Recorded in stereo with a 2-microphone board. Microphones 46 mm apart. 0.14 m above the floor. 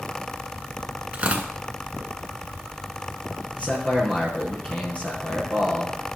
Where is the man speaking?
30° left (ahead or behind), 3 m.